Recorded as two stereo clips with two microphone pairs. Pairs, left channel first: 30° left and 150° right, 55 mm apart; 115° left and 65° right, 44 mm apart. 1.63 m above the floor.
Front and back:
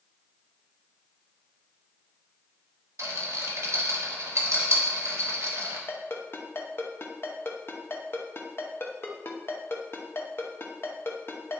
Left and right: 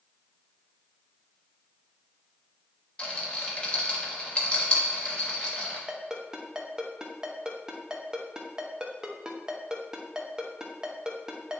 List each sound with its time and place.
3.0 s a rattle: straight behind, 1.2 m
5.9 s a ringtone: 5° left, 0.8 m